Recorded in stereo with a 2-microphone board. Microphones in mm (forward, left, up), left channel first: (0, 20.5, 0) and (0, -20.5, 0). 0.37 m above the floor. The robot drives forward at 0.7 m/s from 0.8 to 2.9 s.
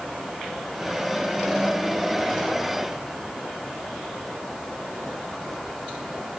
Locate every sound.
Only background noise.